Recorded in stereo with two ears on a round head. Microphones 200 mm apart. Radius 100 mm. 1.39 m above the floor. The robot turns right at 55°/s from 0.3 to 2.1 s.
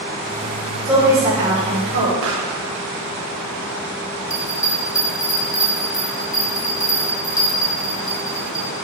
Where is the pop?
60° right (ahead or behind), 0.9 m.